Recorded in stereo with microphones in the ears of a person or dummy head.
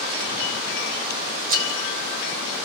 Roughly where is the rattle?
Right.